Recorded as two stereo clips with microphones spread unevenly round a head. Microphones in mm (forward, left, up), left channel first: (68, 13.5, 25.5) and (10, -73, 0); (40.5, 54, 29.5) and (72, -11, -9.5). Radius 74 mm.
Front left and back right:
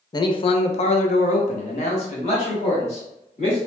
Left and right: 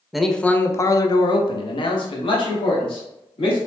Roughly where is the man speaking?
Ahead.